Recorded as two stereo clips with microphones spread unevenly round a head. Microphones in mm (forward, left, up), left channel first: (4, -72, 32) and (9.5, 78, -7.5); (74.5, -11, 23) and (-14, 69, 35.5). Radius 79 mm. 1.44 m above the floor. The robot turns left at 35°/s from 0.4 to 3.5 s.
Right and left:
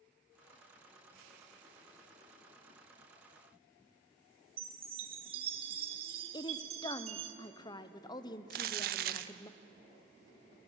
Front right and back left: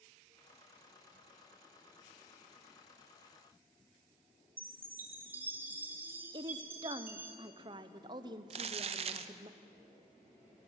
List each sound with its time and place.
4.6 s a chime: 115° left, 1.2 m
6.3 s a woman speaking: 160° right, 0.8 m
8.5 s crumpling: 120° left, 0.7 m